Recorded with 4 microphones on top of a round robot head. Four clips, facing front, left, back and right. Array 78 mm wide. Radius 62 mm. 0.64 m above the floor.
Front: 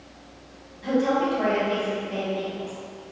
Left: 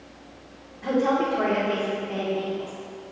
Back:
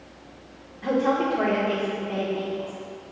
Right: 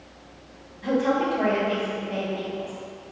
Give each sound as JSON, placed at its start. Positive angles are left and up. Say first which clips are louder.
{"t": 0.8, "sound": "a woman speaking", "louder": "even, even", "azimuth_deg": 150, "distance_m": 1.9}